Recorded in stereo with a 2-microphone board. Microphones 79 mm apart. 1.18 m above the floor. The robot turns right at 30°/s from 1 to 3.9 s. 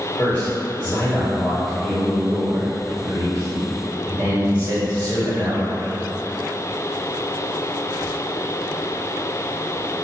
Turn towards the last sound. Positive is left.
turn(degrees=-115)